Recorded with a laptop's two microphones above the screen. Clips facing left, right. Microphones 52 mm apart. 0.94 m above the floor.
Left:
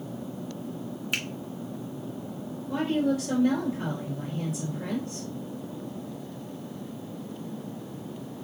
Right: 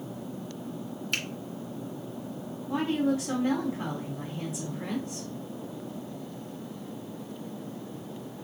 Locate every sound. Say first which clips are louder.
1.1 s a finger snap: left 1 dB; 10° left (ahead or behind), 2 m
2.7 s a woman speaking: left 1 dB; 30° right (ahead or behind), 3 m